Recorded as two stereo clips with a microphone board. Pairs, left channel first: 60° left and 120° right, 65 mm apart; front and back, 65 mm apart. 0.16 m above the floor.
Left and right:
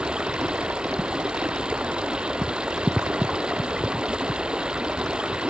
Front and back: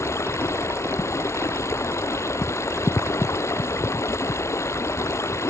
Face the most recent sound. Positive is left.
turn(degrees=-45)